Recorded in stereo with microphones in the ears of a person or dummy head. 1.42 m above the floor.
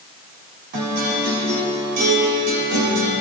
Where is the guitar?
55° right (ahead or behind), 2 m.